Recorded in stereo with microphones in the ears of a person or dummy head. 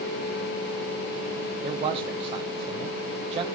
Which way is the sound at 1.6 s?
35° right (ahead or behind).